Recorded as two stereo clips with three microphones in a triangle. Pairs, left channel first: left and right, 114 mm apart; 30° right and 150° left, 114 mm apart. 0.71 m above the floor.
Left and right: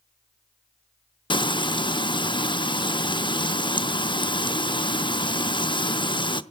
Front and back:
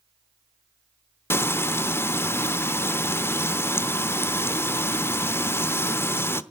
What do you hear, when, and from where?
1.3 s frying: 40° left, 0.7 m